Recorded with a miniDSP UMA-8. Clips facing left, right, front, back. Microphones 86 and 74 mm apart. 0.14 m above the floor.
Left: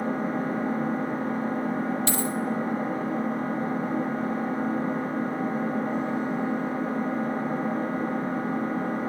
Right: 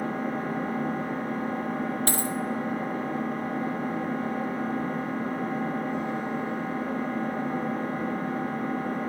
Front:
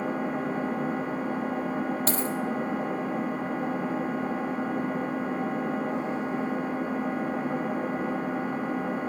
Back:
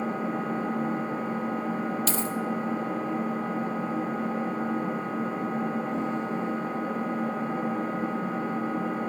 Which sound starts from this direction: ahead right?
A dropped coin, at 2.1 s.